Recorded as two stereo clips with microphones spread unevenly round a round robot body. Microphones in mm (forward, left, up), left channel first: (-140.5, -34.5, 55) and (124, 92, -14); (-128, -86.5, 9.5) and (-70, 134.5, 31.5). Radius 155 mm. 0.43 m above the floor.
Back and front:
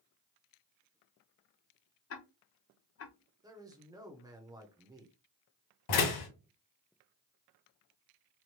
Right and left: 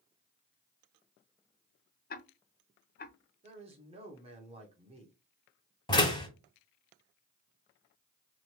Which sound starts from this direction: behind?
A door slam, at 5.9 s.